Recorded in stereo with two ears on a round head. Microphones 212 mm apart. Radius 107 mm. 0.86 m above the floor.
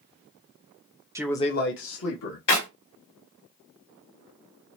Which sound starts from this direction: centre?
A man speaking, at 1.1 s.